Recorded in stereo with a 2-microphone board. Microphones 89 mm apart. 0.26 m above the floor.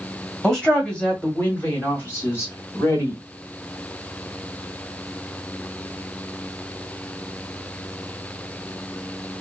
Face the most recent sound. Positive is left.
turn(degrees=30)  # may be behind; listen again after turning